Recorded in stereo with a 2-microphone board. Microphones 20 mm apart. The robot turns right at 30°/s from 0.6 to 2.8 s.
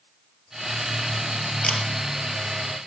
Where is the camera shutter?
60° left (ahead or behind), 3 m.